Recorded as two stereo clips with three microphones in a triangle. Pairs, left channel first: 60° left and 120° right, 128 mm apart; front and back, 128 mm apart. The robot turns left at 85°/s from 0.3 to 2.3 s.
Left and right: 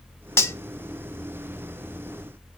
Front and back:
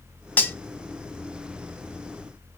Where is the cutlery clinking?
50° left, 0.6 m; by 0.6 s 35° left, 0.6 m.